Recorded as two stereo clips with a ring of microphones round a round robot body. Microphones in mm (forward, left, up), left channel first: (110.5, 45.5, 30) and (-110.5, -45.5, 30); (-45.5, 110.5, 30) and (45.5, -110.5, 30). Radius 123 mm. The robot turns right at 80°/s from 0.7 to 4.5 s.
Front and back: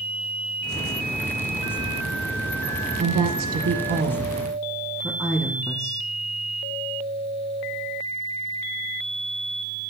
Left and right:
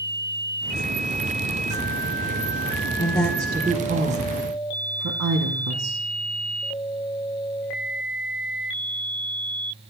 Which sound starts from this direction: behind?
A woman speaking, at 3.0 s.